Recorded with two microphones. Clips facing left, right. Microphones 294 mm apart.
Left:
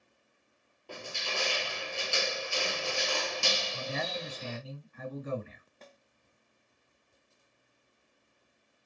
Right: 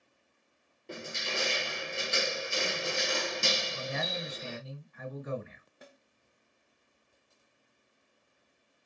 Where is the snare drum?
10° right (ahead or behind), 0.6 m.